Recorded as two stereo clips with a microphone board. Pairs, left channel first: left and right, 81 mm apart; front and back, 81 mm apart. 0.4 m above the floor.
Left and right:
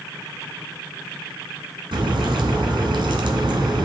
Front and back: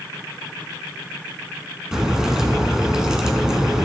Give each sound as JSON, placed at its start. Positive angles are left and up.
{"t": 1.9, "sound": "a crack", "azimuth_deg": -100, "distance_m": 1.3}